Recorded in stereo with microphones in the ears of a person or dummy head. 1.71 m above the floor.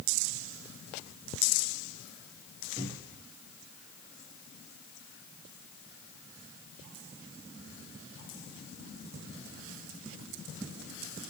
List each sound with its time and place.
2.8 s a cupboard door: 20° right (ahead or behind), 4.5 m